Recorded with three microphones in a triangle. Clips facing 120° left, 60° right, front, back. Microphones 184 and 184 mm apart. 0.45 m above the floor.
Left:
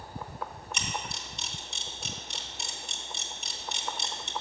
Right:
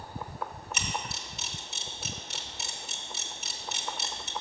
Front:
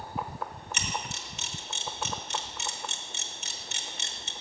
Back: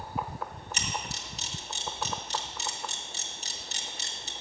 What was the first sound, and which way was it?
A camera shutter, 145° right.